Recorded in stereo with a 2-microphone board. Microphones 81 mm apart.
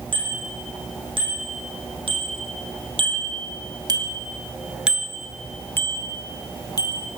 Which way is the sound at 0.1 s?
80° right.